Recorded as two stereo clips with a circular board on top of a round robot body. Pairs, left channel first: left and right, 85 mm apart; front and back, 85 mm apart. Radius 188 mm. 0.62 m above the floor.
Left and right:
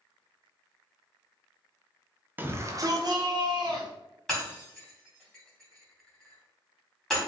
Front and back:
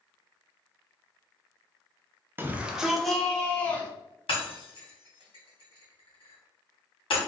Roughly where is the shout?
Behind right.